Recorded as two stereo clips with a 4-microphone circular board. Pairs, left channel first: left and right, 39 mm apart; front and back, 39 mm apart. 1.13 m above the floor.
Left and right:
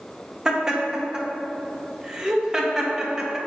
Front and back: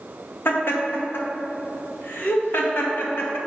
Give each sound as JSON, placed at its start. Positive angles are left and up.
{"t": 0.5, "sound": "laughter", "azimuth_deg": -15, "distance_m": 1.3}